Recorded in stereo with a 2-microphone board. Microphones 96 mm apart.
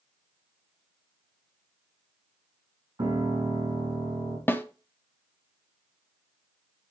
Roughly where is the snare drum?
Left.